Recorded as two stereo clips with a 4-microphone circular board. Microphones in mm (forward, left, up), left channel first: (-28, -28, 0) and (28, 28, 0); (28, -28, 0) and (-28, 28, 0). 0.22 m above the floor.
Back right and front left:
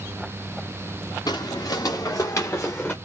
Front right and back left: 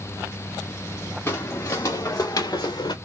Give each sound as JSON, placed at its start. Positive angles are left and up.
{"t": 1.3, "sound": "footsteps", "azimuth_deg": -105, "distance_m": 1.4}